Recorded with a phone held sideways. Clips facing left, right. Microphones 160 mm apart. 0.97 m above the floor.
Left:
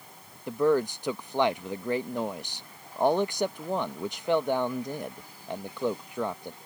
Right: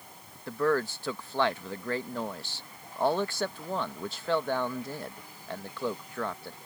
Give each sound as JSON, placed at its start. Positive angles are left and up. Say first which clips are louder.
{"t": 0.5, "sound": "a man speaking", "louder": "left 4 dB", "side_deg": 15}